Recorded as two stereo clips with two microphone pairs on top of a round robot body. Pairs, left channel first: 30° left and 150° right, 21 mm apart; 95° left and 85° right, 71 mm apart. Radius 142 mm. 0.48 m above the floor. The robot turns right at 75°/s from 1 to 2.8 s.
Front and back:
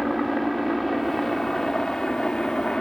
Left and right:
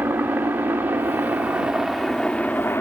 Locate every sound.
0.0 s a helicopter: 75° right; by 2.8 s 60° left